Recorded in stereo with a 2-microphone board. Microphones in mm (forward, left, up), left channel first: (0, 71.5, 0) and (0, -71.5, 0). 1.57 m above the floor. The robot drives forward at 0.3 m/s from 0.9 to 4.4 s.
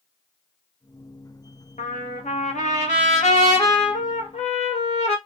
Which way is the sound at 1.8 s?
65° left (ahead or behind).